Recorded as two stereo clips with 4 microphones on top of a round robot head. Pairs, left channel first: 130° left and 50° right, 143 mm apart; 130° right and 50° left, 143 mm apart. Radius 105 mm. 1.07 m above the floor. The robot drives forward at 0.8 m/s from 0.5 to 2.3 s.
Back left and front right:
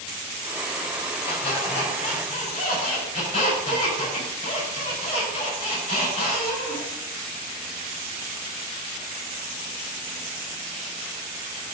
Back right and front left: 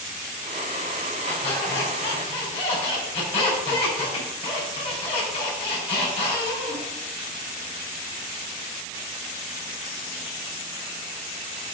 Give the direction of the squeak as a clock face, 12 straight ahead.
6 o'clock.